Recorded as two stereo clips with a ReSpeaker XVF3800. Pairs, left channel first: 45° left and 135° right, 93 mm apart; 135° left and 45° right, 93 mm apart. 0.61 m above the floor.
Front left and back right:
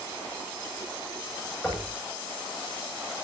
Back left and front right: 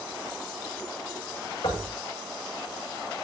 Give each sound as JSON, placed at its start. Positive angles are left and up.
{"t": 1.6, "sound": "knocking", "azimuth_deg": 120, "distance_m": 8.0}